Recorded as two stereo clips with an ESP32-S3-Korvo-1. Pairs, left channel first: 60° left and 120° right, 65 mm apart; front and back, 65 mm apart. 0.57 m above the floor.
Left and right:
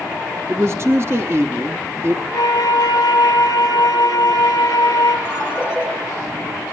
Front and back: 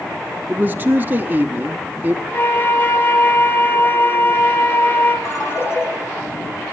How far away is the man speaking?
About 1.0 m.